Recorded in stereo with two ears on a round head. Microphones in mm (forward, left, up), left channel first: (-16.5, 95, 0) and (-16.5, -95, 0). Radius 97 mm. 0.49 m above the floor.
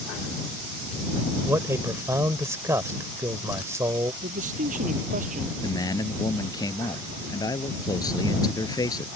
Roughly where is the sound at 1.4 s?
Centre.